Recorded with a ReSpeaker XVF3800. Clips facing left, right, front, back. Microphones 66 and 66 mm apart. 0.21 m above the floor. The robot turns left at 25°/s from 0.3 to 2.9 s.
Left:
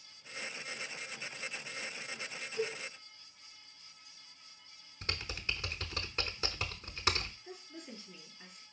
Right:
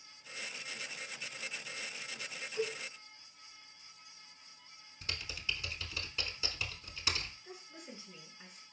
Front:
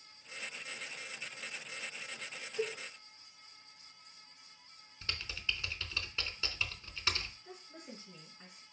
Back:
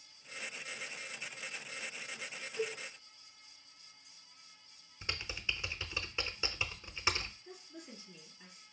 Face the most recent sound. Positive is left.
turn(degrees=-25)